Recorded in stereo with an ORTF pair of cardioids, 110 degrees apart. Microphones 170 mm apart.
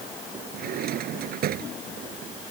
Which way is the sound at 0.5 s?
65° right.